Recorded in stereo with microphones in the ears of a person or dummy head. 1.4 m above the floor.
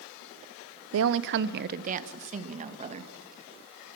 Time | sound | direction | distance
0.9 | a woman speaking | 85° right | 0.6 m